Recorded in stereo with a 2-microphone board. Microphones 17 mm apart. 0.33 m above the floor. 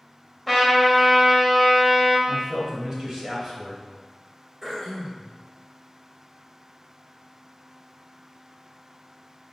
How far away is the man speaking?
About 1.6 m.